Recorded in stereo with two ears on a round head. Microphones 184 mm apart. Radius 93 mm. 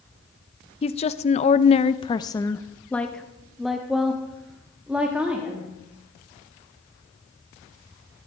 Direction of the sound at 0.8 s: 30° left (ahead or behind).